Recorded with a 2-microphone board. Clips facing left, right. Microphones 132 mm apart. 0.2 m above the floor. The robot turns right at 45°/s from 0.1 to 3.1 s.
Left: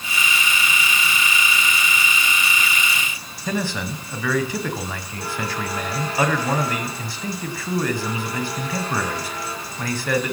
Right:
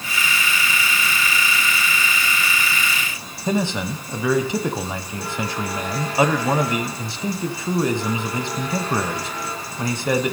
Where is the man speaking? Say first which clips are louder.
Right 3 dB; 20° right (ahead or behind), 1.0 m.